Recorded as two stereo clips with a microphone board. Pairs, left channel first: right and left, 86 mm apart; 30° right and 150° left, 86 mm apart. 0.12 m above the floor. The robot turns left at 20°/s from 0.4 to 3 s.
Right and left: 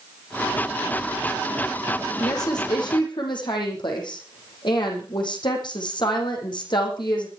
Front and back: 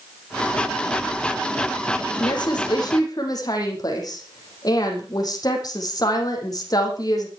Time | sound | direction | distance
2.2 | a woman speaking | 55° right | 5.5 m